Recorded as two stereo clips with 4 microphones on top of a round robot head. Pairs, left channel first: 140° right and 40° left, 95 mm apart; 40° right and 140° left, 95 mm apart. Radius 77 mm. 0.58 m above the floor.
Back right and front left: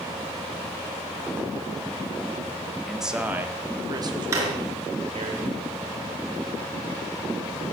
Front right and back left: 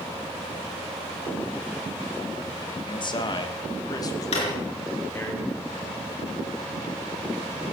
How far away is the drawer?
About 3.5 m.